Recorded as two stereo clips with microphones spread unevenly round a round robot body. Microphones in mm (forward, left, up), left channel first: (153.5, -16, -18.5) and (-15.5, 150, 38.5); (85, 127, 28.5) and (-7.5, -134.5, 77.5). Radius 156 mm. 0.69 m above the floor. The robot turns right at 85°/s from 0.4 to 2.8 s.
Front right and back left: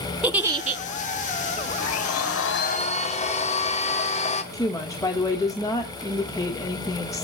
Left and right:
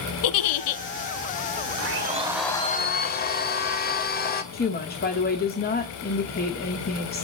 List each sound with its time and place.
0.2 s a giggle: 55° left, 1.2 m; by 0.8 s 95° left, 1.2 m
1.8 s a blender: 70° right, 2.5 m; by 4.4 s 15° left, 2.5 m
4.5 s a woman speaking: 25° left, 1.6 m